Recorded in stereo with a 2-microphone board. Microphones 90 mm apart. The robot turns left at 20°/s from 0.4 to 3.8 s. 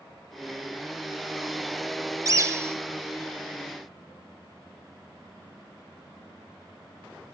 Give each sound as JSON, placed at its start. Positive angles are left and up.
{"t": 2.2, "sound": "a bird", "side_deg": -35, "distance_m": 0.6}